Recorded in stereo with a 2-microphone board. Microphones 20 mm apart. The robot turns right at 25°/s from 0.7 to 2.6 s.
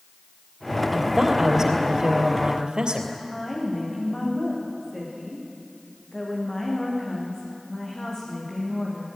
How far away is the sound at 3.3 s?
About 7.5 m.